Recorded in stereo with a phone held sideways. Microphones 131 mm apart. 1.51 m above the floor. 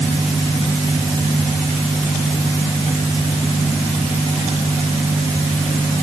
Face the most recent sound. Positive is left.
No sound to turn to.